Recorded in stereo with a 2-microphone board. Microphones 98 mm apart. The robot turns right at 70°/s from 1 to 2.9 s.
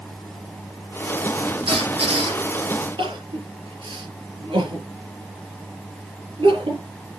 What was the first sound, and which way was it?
A squeak, 110° right.